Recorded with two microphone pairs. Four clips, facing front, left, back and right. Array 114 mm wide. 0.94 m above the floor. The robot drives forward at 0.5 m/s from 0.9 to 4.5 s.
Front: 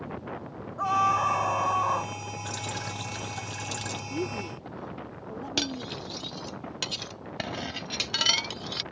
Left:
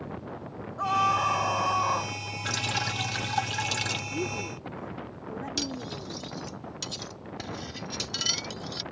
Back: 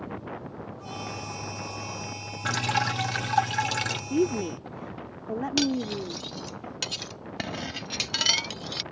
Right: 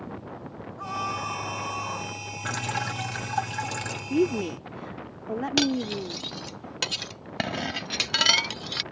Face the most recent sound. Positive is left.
turn(degrees=-85)